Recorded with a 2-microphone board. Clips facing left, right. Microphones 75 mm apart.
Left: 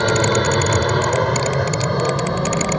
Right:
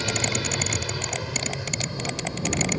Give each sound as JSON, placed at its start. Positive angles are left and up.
{"t": 0.0, "sound": "an aircraft", "side_deg": 55}